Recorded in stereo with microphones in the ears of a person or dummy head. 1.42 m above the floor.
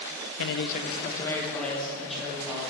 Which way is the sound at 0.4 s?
60° left (ahead or behind).